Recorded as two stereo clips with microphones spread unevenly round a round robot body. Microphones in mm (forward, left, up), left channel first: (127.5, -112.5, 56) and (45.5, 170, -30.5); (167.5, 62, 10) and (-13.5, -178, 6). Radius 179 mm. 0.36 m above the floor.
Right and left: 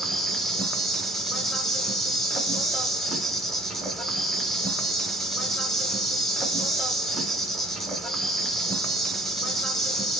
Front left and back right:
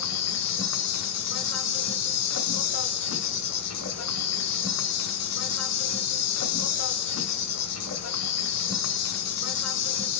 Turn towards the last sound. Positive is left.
turn(degrees=25)